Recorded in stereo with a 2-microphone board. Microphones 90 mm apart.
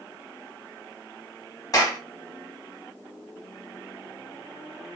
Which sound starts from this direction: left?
A clap, at 1.7 s.